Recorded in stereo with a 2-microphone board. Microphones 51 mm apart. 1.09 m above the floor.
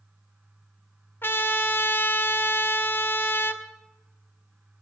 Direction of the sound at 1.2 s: 45° left (ahead or behind).